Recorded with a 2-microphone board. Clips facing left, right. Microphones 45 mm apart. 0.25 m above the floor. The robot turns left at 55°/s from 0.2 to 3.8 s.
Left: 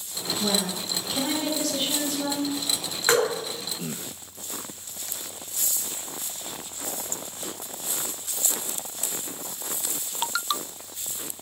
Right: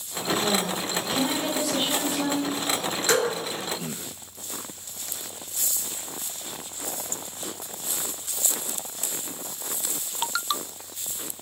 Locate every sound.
0.4 s a woman speaking: 45° left, 1.1 m; by 2.5 s 70° right, 1.1 m
3.1 s dripping: 30° left (ahead or behind), 1.3 m; by 3.3 s 35° left (ahead or behind), 1.3 m